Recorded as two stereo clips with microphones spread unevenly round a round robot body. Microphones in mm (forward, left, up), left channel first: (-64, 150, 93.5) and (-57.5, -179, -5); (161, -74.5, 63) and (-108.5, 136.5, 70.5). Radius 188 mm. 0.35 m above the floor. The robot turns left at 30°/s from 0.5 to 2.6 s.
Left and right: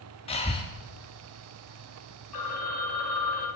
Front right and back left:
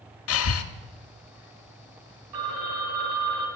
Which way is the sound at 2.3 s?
120° left.